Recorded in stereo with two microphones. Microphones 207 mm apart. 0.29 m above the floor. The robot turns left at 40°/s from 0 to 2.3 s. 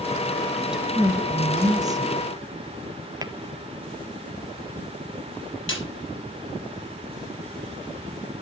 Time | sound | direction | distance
0.5 | a woman speaking | centre (ahead or behind) | 0.9 m
3.2 | tapping | 20° right (ahead or behind) | 0.6 m
5.7 | a snare drum | 75° left (ahead or behind) | 4.5 m